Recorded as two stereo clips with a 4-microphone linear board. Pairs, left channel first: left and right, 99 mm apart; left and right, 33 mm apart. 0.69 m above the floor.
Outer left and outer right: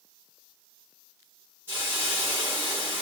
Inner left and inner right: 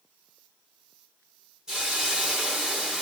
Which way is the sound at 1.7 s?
25° right (ahead or behind).